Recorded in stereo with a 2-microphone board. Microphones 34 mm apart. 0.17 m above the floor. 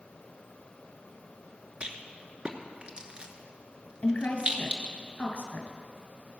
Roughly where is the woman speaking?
Left.